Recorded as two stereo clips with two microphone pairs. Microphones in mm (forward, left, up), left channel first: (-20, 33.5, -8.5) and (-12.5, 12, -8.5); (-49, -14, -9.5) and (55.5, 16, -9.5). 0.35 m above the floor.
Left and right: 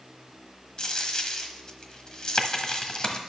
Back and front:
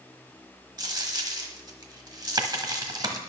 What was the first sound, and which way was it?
A dropped coin, 60° left.